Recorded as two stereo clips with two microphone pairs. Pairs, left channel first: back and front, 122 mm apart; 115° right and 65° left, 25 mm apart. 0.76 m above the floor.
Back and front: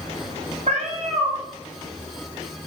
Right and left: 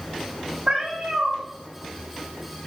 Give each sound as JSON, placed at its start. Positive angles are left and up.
{"t": 0.7, "sound": "a cat meowing", "azimuth_deg": 15, "distance_m": 1.4}